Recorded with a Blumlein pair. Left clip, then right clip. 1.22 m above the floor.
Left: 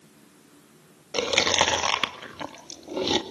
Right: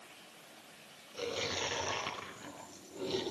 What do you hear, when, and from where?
1.1 s chewing: 50° left, 1.8 m